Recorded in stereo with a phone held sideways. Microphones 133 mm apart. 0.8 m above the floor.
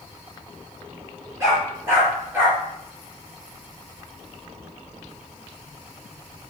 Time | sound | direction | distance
1.4 | a dog barking | 20° right (ahead or behind) | 6 m